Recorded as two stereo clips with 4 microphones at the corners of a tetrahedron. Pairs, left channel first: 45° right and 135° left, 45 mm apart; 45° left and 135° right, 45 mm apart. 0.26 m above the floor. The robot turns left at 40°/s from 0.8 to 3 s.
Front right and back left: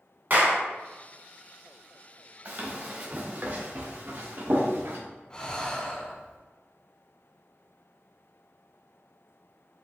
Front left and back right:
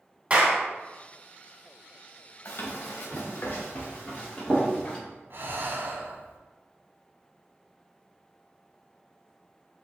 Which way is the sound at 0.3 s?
175° left.